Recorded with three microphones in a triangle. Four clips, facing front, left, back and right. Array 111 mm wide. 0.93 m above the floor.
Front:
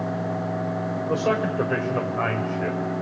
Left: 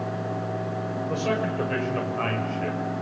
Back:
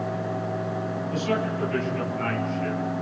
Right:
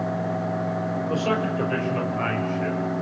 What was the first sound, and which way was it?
A man speaking, 5° right.